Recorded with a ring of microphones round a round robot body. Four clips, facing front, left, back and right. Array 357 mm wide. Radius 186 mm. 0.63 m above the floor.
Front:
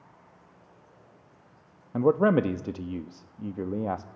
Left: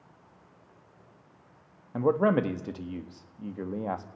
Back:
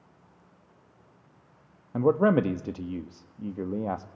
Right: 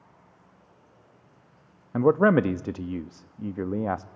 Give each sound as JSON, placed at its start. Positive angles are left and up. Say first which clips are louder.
{"t": 1.9, "sound": "a man speaking", "louder": "right 5 dB, even", "azimuth_deg": -90, "distance_m": 0.9}